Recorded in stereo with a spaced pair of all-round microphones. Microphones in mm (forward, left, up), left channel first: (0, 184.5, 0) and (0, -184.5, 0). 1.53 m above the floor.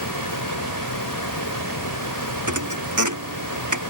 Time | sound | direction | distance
0.0 | a fan | 55° left (ahead or behind) | ?
2.5 | a thud | 50° right (ahead or behind) | ?